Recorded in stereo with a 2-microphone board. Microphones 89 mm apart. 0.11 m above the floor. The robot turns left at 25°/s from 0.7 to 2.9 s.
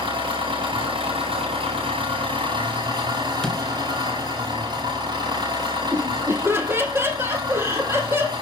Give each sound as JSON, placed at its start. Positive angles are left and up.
{"t": 0.0, "sound": "an engine running", "azimuth_deg": -70, "distance_m": 6.0}
{"t": 3.4, "sound": "a door slam", "side_deg": 5, "distance_m": 1.1}
{"t": 5.9, "sound": "laughter", "side_deg": -25, "distance_m": 3.5}